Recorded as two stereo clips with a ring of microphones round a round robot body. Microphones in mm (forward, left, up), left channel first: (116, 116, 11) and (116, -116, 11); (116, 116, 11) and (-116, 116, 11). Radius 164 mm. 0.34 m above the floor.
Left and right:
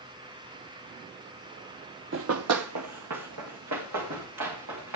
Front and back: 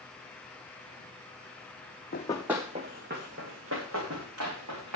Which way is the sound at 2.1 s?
60° right.